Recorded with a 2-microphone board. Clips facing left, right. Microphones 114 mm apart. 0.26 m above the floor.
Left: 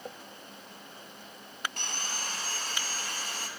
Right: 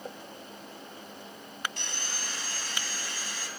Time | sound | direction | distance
1.8 | sawing | 50° left (ahead or behind) | 0.7 m